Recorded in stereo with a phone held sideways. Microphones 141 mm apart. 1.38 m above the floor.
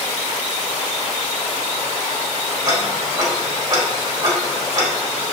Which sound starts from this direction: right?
Ticking, at 2.6 s.